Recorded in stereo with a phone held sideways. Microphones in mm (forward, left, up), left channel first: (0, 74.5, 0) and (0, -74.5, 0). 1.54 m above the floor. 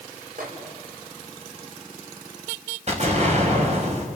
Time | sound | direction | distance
0.4 | a microwave | 75° right (ahead or behind) | 5.5 m
2.9 | an explosion | 50° right (ahead or behind) | 5.5 m